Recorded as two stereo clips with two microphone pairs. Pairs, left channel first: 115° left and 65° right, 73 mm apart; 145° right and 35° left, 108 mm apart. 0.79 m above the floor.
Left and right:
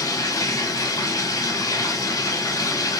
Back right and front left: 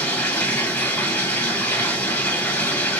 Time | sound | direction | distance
0.0 | running water | 140° left | 1.7 m